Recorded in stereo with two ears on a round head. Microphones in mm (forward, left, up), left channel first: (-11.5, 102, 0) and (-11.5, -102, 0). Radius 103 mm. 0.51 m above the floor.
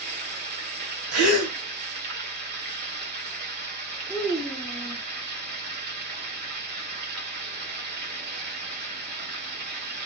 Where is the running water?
50° right (ahead or behind), 1.3 m.